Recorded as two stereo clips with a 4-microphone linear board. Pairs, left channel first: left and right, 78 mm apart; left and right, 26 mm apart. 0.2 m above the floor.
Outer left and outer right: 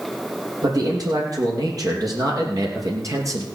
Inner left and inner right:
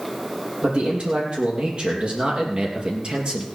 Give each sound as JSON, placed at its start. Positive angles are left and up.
{"t": 0.6, "sound": "a man speaking", "side_deg": -55, "distance_m": 6.0}